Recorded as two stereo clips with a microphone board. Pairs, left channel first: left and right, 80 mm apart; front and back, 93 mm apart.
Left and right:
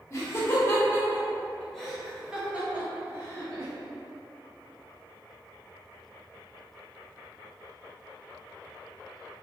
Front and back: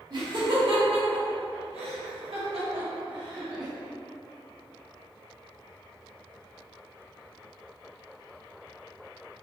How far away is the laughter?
About 1.9 m.